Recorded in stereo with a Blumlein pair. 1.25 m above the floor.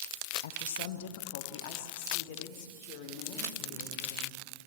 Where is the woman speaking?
60° left, 1.1 m; by 4.4 s 45° left, 4 m.